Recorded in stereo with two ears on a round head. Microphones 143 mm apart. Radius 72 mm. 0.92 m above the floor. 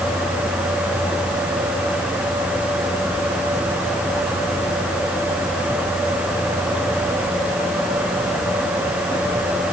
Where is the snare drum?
I don't hear a snare drum.